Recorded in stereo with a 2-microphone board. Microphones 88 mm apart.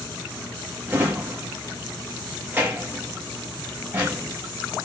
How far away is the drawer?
About 1.1 m.